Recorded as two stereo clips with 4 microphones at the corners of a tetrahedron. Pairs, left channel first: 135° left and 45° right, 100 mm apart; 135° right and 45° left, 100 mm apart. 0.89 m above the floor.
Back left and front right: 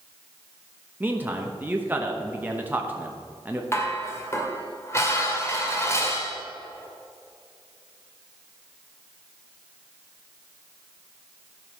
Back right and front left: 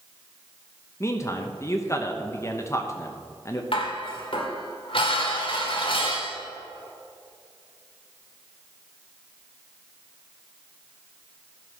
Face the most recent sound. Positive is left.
turn(degrees=-160)